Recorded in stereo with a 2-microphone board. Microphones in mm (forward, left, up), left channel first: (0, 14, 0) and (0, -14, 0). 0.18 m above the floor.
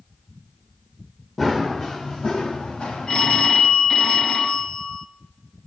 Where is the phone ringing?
30° left (ahead or behind), 0.7 m.